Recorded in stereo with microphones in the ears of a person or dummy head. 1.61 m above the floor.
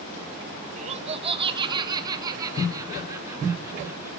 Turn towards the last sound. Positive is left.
turn(degrees=-20)  # may be behind; listen again after turning